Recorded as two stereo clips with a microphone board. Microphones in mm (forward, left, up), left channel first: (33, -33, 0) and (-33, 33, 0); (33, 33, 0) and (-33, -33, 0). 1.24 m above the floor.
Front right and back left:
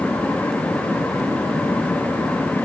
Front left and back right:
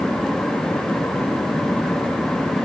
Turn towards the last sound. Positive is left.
No sound to turn to.